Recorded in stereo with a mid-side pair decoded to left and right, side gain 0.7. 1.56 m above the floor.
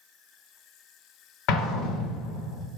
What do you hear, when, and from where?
1.5 s an explosion: 65° left, 0.9 m